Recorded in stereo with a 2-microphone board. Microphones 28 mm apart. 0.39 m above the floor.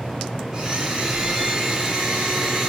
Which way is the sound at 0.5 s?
40° right (ahead or behind).